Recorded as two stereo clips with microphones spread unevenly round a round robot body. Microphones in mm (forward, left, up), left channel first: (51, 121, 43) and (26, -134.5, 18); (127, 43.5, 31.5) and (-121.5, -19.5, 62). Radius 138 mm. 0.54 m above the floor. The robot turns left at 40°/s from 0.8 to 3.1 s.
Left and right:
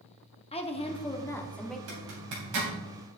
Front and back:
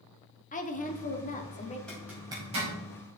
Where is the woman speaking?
25° left, 1.4 m; by 1.8 s 15° right, 1.4 m.